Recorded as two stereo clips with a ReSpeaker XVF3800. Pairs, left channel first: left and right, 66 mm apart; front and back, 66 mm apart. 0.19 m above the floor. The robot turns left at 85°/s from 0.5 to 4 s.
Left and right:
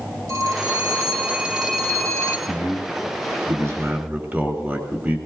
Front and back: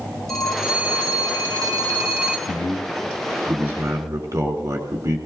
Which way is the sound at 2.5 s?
10° right.